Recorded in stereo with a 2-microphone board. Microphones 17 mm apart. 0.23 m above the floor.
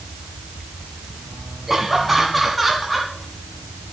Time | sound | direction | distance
1.7 | laughter | 15° right (ahead or behind) | 1.5 m